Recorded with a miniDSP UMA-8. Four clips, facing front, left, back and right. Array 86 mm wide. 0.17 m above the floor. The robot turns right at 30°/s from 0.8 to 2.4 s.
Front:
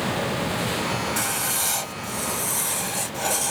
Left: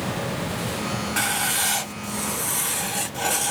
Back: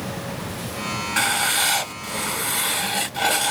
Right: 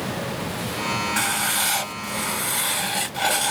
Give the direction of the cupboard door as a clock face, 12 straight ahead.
No cupboard door in this recording.